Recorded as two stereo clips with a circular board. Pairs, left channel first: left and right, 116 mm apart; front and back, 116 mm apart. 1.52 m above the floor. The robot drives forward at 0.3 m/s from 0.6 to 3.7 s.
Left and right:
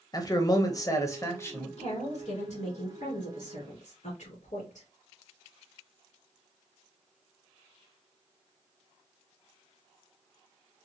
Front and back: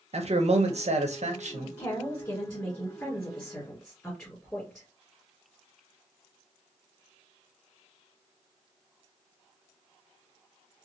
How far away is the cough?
No cough in this recording.